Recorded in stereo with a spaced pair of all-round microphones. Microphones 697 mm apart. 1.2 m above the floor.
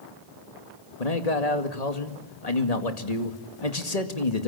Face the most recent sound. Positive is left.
turn(degrees=60)  # may be behind; listen again after turning